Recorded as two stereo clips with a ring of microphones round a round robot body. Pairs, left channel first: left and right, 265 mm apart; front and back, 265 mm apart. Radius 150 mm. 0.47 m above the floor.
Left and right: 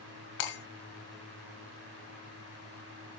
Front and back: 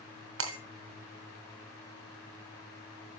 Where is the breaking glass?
140° left, 2.5 m.